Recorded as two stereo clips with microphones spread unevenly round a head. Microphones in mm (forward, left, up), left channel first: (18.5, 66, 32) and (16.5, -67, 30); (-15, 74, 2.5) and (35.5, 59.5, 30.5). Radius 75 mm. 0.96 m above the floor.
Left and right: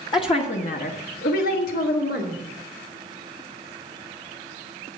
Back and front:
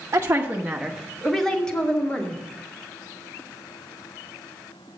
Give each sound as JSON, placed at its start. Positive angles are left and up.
{"t": 0.1, "sound": "a woman speaking", "azimuth_deg": 35, "distance_m": 1.1}